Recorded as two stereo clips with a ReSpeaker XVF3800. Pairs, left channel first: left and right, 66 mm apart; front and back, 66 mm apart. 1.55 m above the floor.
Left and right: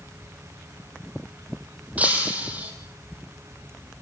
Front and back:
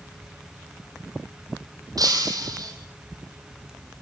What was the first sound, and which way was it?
Breaking glass, 160° right.